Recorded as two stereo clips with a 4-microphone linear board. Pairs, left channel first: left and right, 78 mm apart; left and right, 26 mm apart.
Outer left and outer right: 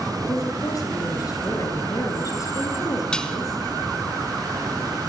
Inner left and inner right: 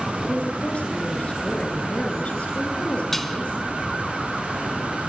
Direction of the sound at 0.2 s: 50° left (ahead or behind).